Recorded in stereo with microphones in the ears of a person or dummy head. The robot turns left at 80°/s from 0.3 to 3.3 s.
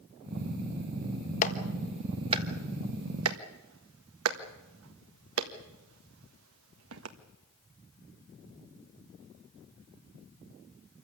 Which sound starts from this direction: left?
A clap, at 1.4 s.